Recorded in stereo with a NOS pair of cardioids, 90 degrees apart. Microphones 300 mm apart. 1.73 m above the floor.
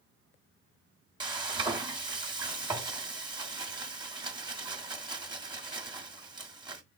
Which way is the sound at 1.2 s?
15° right.